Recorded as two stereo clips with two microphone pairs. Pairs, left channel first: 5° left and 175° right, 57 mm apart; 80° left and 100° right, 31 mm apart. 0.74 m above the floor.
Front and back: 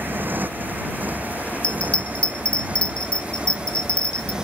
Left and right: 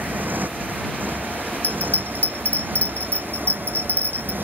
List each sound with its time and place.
0.0 s a motorcycle: 115° right; by 4.4 s 95° right
1.6 s a bell: 80° left